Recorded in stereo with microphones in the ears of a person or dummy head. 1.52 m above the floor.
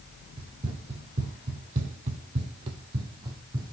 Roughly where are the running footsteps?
Right.